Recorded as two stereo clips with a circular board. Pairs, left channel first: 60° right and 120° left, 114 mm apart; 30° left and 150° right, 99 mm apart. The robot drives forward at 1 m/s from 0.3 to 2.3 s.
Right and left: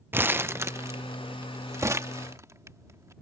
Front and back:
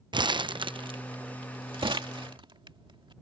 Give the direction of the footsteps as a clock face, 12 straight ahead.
No footsteps in this recording.